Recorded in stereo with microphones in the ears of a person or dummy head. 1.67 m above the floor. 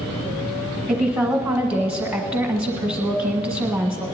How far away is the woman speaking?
About 1.5 m.